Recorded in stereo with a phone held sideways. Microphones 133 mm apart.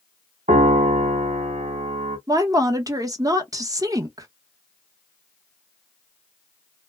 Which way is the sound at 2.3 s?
30° right (ahead or behind).